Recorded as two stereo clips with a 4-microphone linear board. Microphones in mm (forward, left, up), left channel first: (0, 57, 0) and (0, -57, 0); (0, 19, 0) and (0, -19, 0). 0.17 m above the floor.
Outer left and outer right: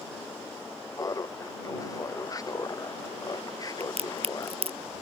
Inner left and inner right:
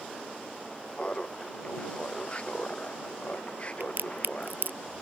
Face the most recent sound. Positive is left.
turn(degrees=-60)  # may be behind; listen again after turning